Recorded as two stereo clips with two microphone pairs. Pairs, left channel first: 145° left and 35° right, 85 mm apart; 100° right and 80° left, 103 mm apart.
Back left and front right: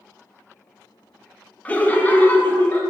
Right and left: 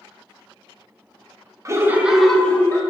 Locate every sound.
1.6 s laughter: 80° left, 0.6 m; by 2.8 s 155° right, 0.7 m